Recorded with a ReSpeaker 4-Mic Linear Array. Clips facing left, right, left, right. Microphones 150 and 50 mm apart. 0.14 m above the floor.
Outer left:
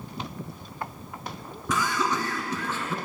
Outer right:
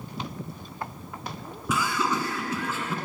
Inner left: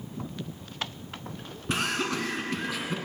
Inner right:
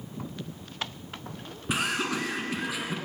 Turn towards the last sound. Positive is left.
turn(degrees=0)  # may be behind; listen again after turning